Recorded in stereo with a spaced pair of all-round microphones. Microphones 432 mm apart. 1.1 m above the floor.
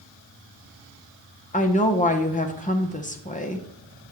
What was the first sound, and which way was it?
A woman speaking, 20° left (ahead or behind).